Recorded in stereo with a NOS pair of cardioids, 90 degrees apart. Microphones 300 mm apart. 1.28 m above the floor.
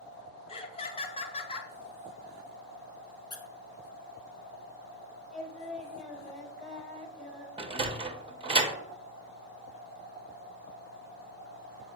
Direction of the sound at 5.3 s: Straight ahead.